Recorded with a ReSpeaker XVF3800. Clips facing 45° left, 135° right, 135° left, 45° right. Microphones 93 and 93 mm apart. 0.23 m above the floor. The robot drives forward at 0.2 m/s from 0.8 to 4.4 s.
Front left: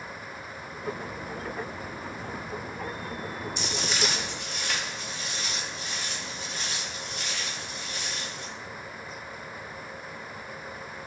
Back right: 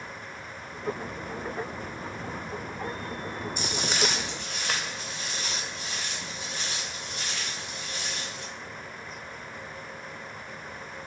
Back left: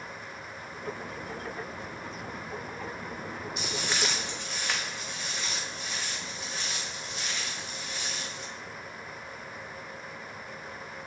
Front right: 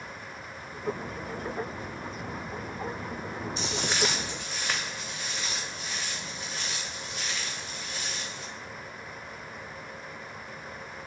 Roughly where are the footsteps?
Right.